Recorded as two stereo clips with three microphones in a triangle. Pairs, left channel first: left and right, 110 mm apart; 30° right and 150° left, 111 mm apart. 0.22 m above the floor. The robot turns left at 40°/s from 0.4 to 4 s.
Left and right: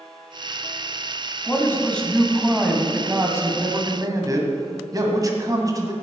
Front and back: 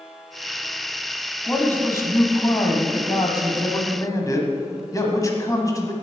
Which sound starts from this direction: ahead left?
A man speaking, at 1.5 s.